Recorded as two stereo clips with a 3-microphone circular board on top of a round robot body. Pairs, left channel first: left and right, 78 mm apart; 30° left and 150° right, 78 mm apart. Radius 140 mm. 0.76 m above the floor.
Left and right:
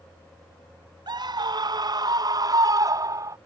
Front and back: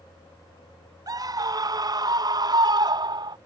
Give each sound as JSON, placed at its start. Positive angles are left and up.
{"t": 1.1, "sound": "a scream", "azimuth_deg": -115}